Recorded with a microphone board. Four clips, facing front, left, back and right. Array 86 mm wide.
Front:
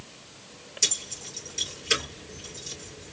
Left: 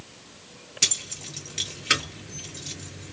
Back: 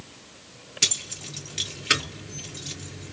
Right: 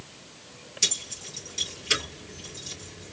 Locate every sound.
0.8 s keys jangling: 145° left, 2.5 m